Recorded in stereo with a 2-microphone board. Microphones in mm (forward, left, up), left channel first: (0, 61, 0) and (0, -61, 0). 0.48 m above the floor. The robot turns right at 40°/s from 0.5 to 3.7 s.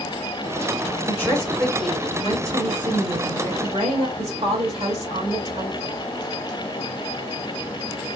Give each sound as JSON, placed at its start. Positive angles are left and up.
{"t": 1.1, "sound": "a woman speaking", "azimuth_deg": 155, "distance_m": 2.0}